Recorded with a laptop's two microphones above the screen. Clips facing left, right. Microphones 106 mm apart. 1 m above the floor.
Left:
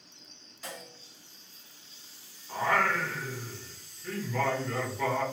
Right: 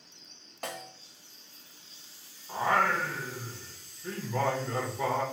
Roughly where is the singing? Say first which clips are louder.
Right 1 dB; right.